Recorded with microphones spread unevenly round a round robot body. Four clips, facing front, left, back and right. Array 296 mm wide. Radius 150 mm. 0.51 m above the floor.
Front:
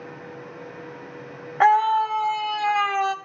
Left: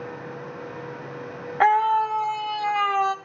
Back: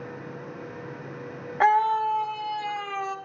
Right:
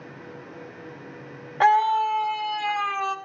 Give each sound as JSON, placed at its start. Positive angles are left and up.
{"t": 1.6, "sound": "a scream", "azimuth_deg": 100, "distance_m": 1.4}